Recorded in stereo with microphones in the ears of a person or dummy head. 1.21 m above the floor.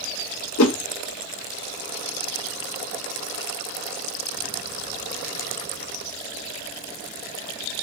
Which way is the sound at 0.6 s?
70° left (ahead or behind).